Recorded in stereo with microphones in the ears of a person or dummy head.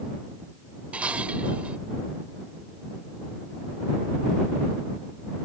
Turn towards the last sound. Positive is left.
turn(degrees=-5)  # may be behind; listen again after turning